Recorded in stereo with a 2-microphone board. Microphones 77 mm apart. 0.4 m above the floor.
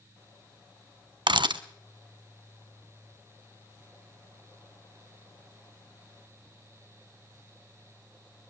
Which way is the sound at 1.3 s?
85° right.